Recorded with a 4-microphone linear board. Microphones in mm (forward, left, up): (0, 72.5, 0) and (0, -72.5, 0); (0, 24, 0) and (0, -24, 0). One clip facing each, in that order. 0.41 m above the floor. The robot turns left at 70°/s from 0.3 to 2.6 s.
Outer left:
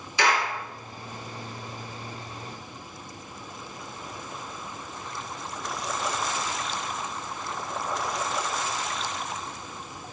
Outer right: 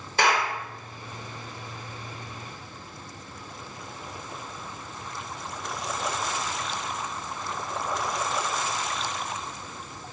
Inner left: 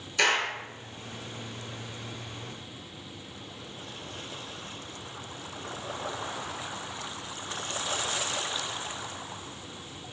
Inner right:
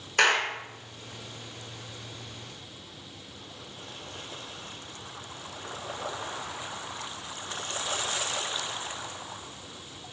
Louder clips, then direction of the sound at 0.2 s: Outer right 1 dB, inner right 2 dB; 50° right (ahead or behind).